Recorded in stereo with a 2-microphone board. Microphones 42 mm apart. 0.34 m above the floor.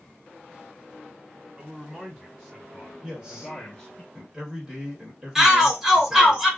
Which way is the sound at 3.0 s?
25° right (ahead or behind).